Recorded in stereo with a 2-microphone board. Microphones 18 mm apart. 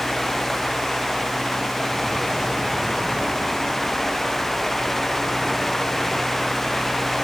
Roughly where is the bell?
I don't hear a bell.